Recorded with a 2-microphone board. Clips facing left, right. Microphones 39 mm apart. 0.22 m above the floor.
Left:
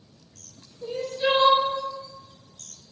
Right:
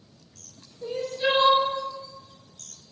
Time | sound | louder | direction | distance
0.8 | crying | even | 10° right (ahead or behind) | 0.6 m